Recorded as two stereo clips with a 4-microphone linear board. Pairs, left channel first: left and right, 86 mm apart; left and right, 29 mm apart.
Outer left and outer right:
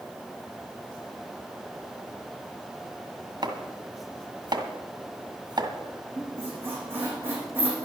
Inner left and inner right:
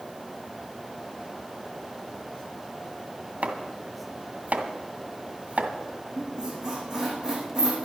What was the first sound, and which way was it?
Chopping, 55° right (ahead or behind).